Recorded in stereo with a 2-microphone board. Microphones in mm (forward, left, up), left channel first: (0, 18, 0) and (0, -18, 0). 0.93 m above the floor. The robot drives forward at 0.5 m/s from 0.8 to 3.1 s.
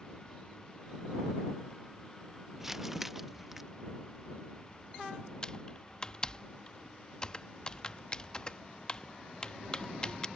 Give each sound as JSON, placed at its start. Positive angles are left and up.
{"t": 2.6, "sound": "crumpling", "side_deg": -10}
{"t": 5.4, "sound": "typing on a keyboard", "side_deg": 25}